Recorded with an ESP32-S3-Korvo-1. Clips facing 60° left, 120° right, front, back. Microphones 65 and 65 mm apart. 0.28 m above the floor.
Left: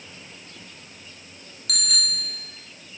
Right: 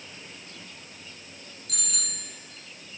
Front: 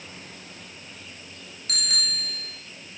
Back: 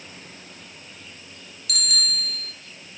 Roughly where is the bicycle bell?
Ahead left.